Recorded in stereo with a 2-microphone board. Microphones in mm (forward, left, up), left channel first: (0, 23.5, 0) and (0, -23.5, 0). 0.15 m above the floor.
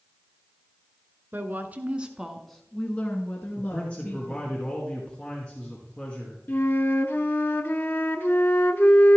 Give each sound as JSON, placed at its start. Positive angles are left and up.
{"t": 1.3, "sound": "a woman speaking", "side_deg": -45, "distance_m": 1.6}
{"t": 3.6, "sound": "a man speaking", "side_deg": 25, "distance_m": 1.9}
{"t": 6.5, "sound": "a flute", "side_deg": 50, "distance_m": 0.8}